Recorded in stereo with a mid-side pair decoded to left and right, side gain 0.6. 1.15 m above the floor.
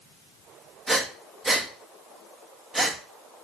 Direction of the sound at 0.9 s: 10° right.